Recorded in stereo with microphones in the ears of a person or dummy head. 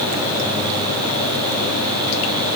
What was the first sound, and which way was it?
Only background noise.